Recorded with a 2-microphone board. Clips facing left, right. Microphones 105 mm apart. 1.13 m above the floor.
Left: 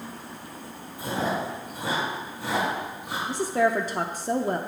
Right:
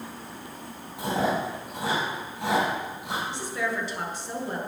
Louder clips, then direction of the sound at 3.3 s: Left 12 dB; 40° left (ahead or behind).